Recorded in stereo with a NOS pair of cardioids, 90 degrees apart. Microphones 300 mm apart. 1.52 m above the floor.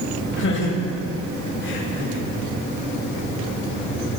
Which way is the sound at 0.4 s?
40° left.